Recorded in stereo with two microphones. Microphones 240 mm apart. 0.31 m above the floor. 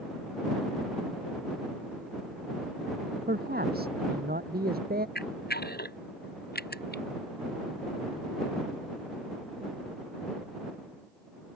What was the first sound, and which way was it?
A man speaking, 40° right (ahead or behind).